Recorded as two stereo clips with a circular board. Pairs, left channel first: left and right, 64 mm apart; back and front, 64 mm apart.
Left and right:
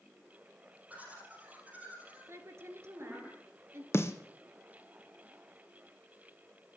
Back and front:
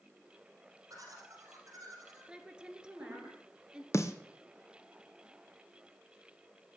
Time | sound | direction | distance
0.9 | laughter | 25° right | 4 m
2.3 | a woman speaking | 70° right | 1.6 m
3.9 | a snare drum | 135° left | 1.7 m